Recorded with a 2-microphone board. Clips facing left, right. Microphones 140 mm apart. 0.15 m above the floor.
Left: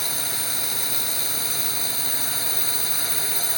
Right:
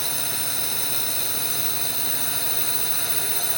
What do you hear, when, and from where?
0.0 s a drone: centre (ahead or behind)